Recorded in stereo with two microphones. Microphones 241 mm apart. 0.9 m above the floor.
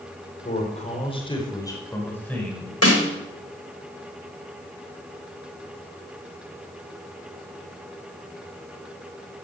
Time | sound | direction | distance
0.5 | a man speaking | 35° left (ahead or behind) | 4 m
2.8 | a snare drum | 85° left | 3.5 m